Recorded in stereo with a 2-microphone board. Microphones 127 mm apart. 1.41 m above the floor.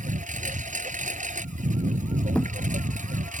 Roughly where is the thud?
Centre.